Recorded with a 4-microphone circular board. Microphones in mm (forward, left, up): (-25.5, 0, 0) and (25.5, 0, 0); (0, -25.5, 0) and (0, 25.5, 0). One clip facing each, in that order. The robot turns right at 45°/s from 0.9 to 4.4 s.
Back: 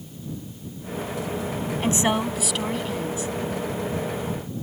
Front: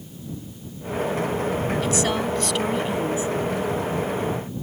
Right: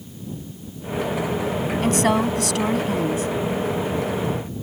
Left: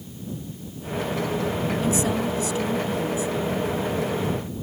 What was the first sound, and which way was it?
A woman speaking, 125° right.